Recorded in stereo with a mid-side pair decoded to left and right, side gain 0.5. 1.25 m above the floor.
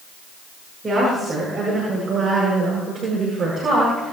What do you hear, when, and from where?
0.8 s a woman speaking: 25° right, 8.5 m; by 4.1 s 45° right, 7 m